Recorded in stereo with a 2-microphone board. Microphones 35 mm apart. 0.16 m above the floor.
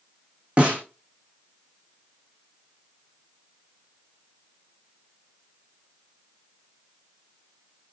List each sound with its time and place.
0.6 s a snare drum: 35° right (ahead or behind), 3.5 m